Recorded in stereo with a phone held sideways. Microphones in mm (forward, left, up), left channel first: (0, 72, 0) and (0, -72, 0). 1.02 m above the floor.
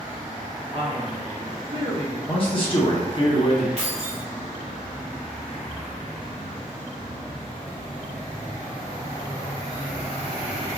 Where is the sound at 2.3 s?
40° left (ahead or behind), 1.0 m.